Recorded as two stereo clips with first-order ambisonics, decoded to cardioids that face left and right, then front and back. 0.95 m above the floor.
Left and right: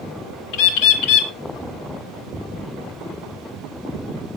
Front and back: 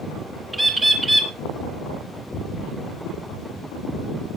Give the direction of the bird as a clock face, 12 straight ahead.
9 o'clock.